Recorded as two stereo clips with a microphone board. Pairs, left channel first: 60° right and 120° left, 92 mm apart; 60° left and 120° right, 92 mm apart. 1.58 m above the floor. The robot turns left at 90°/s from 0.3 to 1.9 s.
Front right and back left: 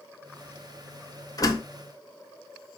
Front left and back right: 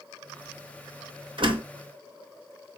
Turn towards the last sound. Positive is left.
turn(degrees=-150)